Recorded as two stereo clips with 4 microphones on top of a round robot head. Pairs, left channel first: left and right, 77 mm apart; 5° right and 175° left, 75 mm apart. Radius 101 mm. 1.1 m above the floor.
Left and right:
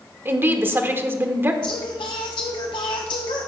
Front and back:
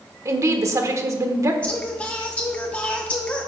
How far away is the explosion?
No explosion in this recording.